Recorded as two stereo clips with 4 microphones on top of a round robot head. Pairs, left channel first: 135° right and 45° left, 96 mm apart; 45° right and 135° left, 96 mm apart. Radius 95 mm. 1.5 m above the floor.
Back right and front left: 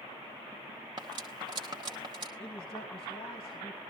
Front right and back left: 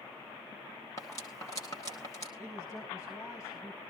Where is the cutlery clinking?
5° left, 0.9 m.